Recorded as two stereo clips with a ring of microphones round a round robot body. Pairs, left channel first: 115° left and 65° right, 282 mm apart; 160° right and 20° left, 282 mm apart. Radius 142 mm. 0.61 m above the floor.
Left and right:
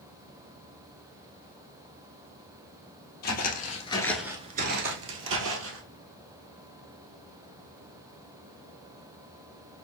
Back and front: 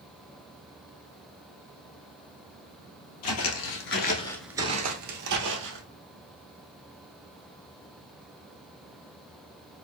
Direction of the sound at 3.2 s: 170° left.